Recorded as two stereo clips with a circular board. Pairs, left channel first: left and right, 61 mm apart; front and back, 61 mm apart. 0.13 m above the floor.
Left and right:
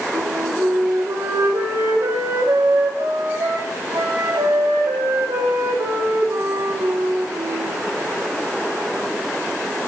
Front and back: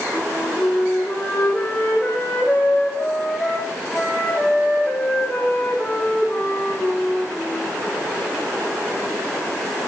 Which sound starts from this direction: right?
A flute, at 0.1 s.